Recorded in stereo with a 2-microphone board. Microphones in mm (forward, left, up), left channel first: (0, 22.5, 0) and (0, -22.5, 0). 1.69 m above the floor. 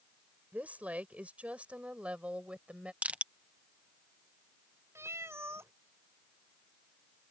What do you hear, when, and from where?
0.5 s a woman speaking: 30° right (ahead or behind); by 2.9 s 25° right (ahead or behind)
3.0 s crushing: 30° right (ahead or behind)
5.0 s a cat meowing: 70° right (ahead or behind)